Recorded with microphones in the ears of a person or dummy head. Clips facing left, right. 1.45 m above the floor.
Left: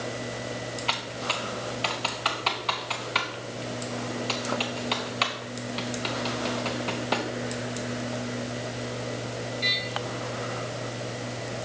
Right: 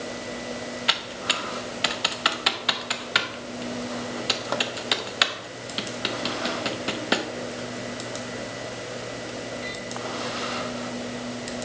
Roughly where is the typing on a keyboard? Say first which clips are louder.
Even; centre.